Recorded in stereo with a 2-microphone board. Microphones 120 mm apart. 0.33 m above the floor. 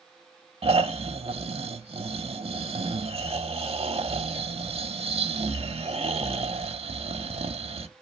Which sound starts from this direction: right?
Snoring, at 0.6 s.